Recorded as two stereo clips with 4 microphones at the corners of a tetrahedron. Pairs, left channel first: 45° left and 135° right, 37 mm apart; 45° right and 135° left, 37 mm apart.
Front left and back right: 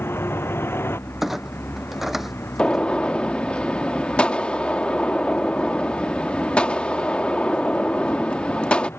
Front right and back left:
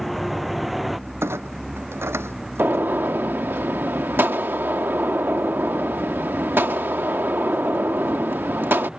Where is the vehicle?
45° left; by 9.0 s 60° left.